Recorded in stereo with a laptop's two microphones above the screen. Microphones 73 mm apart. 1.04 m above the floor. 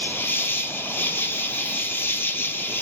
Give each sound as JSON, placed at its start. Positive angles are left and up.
{"t": 0.0, "sound": "an insect", "side_deg": 30, "distance_m": 0.9}